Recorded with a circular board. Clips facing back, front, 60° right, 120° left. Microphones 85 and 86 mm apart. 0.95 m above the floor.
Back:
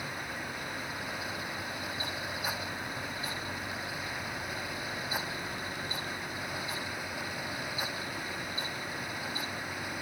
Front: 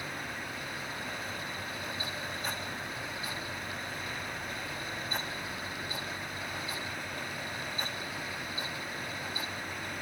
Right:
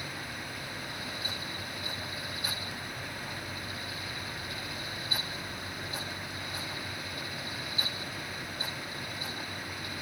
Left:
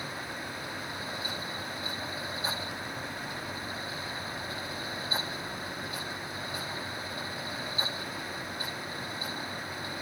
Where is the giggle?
No giggle in this recording.